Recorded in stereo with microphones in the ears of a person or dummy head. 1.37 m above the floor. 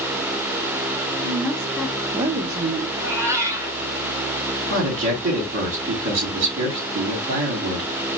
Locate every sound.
1.2 s a woman speaking: 10° left (ahead or behind), 1.1 m; by 2.9 s 75° right (ahead or behind), 0.7 m
3.0 s a cat meowing: 20° right (ahead or behind), 1.0 m
4.7 s a man speaking: 65° right (ahead or behind), 2 m